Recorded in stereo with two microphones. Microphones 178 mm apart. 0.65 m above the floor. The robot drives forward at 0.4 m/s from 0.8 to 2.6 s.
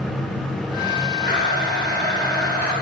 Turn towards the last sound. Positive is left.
turn(degrees=-60)  # may be behind; listen again after turning